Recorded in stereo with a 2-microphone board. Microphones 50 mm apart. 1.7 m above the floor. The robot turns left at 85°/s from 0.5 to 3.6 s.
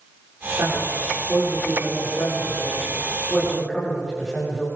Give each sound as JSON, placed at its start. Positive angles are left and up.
{"t": 0.6, "sound": "a man speaking", "side_deg": -60, "distance_m": 6.5}